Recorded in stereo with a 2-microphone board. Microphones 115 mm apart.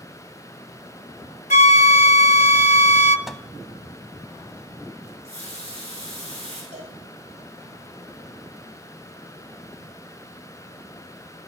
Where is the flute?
80° left, 0.6 m.